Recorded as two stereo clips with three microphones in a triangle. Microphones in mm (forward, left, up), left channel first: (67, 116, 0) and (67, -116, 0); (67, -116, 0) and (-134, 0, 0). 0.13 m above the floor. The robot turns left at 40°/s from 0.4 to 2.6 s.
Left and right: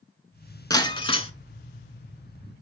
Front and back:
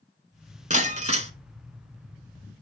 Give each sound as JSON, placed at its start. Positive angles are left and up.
{"t": 0.7, "sound": "breaking glass", "azimuth_deg": 145, "distance_m": 0.7}